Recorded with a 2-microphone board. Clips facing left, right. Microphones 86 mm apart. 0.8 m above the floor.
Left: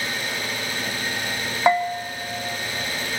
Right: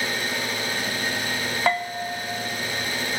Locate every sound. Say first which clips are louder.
0.0 s an engine running: right 1 dB; 15° right (ahead or behind), 7 m
1.7 s a bell: left 6 dB; 15° left (ahead or behind), 0.5 m